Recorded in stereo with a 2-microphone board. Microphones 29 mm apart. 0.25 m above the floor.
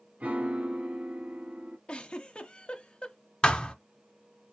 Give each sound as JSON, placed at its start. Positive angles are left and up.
{"t": 0.2, "sound": "a piano", "side_deg": -50, "distance_m": 1.0}
{"t": 1.9, "sound": "a giggle", "side_deg": 35, "distance_m": 0.8}
{"t": 3.4, "sound": "a thud", "side_deg": 30, "distance_m": 0.7}